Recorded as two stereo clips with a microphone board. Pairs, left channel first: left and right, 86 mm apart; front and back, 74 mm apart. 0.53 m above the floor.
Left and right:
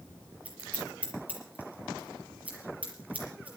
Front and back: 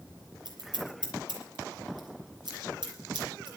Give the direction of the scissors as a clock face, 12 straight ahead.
5 o'clock.